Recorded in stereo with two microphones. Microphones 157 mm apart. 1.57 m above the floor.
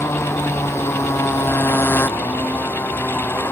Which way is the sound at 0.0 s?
20° left (ahead or behind).